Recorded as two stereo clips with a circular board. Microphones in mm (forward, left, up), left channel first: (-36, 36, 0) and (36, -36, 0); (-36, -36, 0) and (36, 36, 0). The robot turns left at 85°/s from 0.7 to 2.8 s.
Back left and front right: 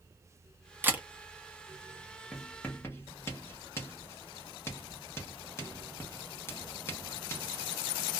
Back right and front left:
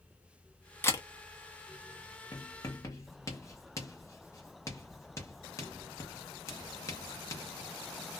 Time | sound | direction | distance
0.8 | a camera shutter | 90° right | 0.9 m
2.3 | writing | 130° right | 1.0 m